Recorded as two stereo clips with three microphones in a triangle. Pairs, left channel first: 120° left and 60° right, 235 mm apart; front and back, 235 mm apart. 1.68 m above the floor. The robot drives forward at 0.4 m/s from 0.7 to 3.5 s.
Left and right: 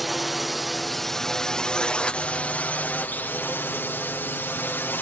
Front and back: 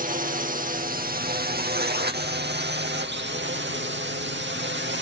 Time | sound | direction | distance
0.0 | a drone | 150° right | ?